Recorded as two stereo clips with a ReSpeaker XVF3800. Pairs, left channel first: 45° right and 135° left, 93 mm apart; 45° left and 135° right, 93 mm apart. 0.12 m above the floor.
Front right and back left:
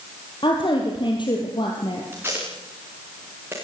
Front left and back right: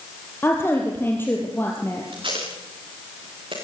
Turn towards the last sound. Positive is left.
turn(degrees=-160)